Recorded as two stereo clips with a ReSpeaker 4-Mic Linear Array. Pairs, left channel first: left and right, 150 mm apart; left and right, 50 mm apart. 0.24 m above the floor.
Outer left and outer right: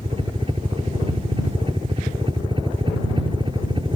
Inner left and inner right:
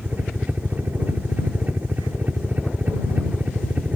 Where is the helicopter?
40° right (ahead or behind); by 4.0 s 35° right (ahead or behind).